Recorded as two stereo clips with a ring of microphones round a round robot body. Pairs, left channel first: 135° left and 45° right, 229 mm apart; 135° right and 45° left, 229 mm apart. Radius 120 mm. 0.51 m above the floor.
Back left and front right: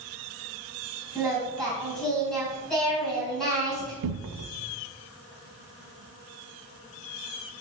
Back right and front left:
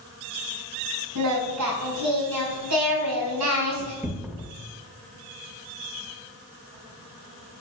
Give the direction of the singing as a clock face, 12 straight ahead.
10 o'clock.